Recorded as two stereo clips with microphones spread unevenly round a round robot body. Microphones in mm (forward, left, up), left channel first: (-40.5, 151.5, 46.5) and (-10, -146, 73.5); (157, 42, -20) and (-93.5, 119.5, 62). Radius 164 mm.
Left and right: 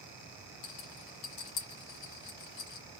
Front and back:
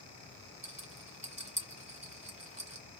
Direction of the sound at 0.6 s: 100° left.